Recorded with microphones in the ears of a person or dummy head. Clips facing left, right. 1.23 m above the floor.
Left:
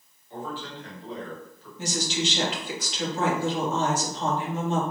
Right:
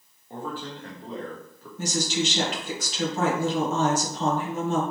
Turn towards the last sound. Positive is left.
turn(degrees=-35)  # may be behind; listen again after turning